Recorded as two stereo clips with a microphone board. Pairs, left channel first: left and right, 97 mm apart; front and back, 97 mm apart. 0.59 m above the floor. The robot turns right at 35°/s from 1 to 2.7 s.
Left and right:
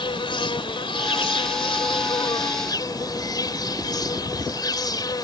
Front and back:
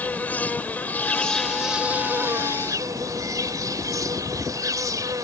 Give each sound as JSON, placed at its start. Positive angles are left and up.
{"t": 0.0, "sound": "an insect", "azimuth_deg": 70}